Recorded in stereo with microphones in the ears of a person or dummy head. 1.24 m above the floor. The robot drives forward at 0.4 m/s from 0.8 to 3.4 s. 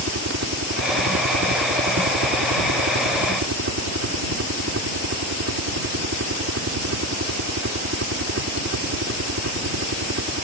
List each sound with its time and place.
0.0 s a helicopter: 70° right (ahead or behind); by 10.4 s 60° right (ahead or behind)